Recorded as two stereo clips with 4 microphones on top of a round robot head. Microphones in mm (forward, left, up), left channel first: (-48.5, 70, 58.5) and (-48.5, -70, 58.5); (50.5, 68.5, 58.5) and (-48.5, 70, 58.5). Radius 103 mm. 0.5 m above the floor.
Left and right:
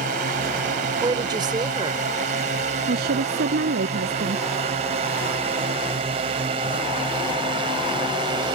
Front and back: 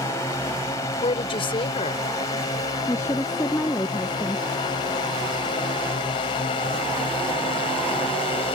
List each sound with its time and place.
0.0 s a drone: 65° right; by 8.6 s 30° right
1.0 s a woman speaking: 30° right
2.9 s a woman speaking: 75° right